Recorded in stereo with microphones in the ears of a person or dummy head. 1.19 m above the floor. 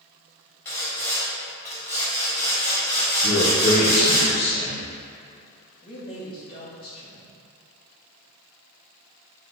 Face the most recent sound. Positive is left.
turn(degrees=30)  # may be behind; listen again after turning